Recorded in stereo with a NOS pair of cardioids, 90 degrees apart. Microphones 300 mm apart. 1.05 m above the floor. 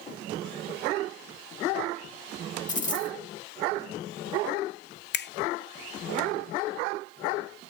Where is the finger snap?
35° left, 0.6 m.